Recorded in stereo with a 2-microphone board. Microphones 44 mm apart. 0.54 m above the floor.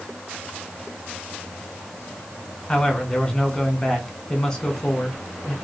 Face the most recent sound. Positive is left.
turn(degrees=15)  # may be behind; listen again after turning